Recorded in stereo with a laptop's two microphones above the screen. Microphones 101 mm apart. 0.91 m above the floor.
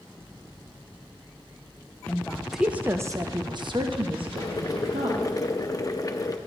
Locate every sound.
2.1 s a woman speaking: 15° left (ahead or behind), 0.8 m; by 5.3 s 75° right (ahead or behind), 1.7 m
4.4 s boiling: 40° left (ahead or behind), 0.6 m